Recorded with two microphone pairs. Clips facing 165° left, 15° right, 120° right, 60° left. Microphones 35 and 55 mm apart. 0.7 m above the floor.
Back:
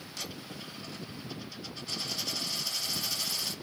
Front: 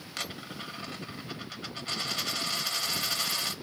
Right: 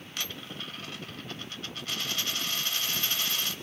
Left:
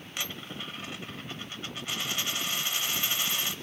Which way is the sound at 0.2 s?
15° right.